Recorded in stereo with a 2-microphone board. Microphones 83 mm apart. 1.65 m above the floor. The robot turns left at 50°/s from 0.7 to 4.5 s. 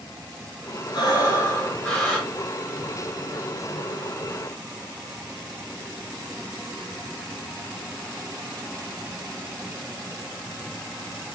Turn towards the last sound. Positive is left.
turn(degrees=-125)